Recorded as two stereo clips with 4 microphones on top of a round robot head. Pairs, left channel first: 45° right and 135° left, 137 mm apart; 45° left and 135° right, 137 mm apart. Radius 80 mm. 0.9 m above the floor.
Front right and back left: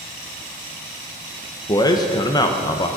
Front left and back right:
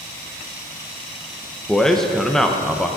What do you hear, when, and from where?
1.7 s a man speaking: 35° right, 0.9 m